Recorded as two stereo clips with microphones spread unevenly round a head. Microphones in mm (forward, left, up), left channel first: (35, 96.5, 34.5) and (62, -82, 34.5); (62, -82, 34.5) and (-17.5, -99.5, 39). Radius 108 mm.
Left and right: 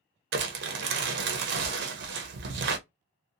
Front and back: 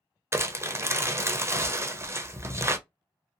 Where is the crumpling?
105° right, 0.6 m.